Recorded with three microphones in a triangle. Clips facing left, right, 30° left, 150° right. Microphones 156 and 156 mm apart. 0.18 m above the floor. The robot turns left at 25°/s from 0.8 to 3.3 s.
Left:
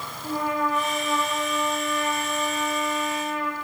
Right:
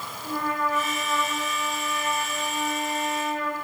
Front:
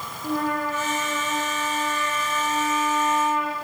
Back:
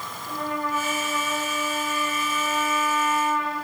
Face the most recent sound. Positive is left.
turn(degrees=-50)